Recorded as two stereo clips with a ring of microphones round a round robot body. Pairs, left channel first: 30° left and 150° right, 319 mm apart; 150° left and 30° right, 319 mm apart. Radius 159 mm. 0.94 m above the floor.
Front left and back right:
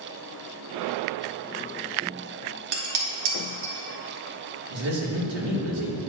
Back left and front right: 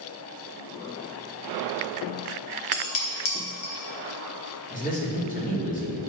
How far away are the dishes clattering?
About 1.5 m.